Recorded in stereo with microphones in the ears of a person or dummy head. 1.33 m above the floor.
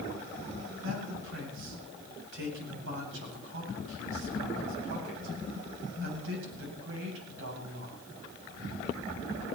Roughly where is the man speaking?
Right.